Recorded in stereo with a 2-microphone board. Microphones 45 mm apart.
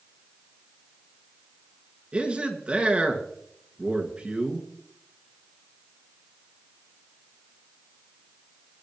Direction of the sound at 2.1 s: 25° right (ahead or behind).